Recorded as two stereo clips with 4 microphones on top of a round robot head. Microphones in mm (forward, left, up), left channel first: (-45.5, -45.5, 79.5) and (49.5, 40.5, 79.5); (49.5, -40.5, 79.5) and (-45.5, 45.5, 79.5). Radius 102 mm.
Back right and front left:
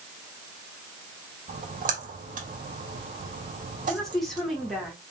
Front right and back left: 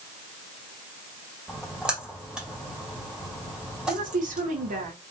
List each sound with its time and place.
1.5 s a splash: 55° left, 2 m
3.9 s a woman speaking: 135° left, 2.5 m